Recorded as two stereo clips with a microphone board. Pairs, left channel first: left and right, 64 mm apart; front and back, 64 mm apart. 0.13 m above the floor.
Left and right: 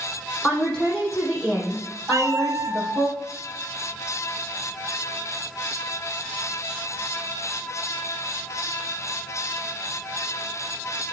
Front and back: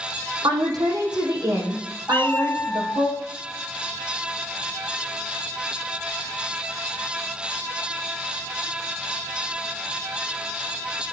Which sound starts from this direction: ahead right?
A cat meowing, at 2.1 s.